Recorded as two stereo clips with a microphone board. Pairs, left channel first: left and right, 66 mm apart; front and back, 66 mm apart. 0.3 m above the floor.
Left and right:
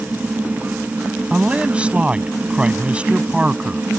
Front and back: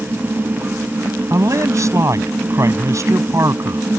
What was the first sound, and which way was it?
A man speaking, 160° right.